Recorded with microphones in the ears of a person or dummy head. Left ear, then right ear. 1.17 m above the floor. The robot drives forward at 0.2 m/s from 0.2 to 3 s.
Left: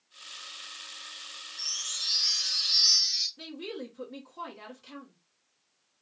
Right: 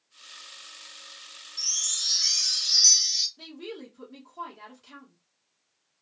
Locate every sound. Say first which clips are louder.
1.6 s a chime: right 5 dB; 80° right, 0.9 m; by 3.3 s 65° right (ahead or behind), 1.0 m
3.4 s a woman speaking: left 1 dB; 5° left (ahead or behind), 1.0 m